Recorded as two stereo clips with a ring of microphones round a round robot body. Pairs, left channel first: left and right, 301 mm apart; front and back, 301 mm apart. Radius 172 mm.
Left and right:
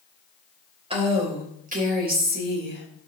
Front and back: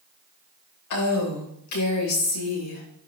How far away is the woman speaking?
About 3.5 m.